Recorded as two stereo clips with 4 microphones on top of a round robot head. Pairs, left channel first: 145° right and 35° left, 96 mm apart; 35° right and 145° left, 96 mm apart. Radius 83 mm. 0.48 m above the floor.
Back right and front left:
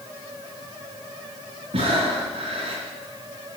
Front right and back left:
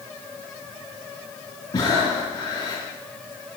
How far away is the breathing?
About 3.5 m.